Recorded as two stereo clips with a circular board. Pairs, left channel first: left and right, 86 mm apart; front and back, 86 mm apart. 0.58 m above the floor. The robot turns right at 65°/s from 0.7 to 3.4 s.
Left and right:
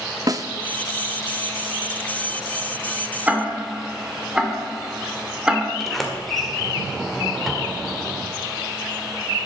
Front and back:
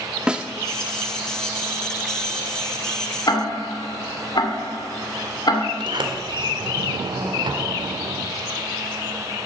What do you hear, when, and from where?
0.3 s a snare drum: 105° right, 0.6 m
3.3 s ticking: 20° right, 2.0 m; by 5.7 s 10° right, 2.0 m
5.8 s a sliding door: 175° left, 1.8 m